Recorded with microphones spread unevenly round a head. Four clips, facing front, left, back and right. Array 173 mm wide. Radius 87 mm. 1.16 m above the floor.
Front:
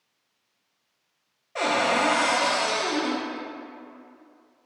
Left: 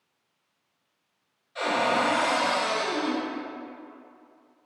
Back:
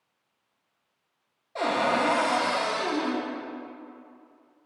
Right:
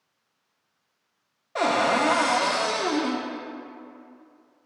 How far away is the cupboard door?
About 1.0 m.